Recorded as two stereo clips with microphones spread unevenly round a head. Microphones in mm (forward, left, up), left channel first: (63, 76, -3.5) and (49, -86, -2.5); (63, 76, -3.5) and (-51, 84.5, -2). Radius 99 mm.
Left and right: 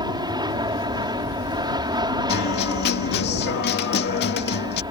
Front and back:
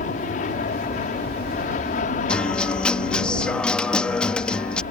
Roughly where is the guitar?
Left.